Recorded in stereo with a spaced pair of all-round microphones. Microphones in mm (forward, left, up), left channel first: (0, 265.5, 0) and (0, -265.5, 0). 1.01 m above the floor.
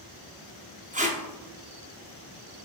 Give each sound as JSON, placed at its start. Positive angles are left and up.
{"t": 0.9, "sound": "tape being pulled", "side_deg": -15, "distance_m": 0.5}